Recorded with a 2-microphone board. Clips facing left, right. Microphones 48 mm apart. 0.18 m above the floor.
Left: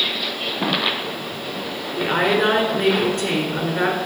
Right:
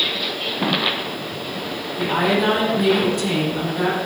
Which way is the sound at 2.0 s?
50° left (ahead or behind).